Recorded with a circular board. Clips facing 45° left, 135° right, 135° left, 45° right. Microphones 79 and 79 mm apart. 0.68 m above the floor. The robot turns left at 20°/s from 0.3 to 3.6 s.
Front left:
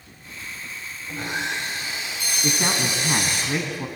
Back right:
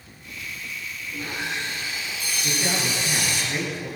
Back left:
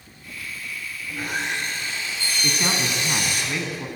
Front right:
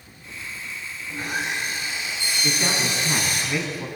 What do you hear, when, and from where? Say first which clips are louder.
1.1 s sawing: front left 3 dB, even; 50° left, 9 m; by 3.4 s 5° left, 9 m
2.4 s a man speaking: front left 2 dB, even; 70° left, 6.5 m; by 3.9 s 45° left, 6.5 m